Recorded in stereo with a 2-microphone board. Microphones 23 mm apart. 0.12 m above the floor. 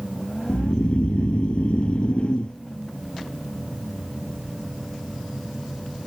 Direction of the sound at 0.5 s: 55° left (ahead or behind).